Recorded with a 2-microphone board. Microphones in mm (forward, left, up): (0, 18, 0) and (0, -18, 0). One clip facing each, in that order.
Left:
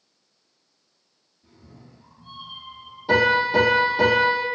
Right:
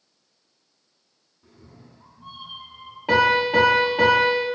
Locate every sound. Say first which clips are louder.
1.4 s a cat meowing: even; 65° right (ahead or behind), 1.6 m
3.1 s a piano: even; 60° right (ahead or behind), 1.5 m